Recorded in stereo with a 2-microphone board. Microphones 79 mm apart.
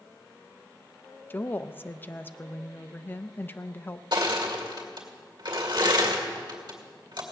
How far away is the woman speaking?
About 0.5 m.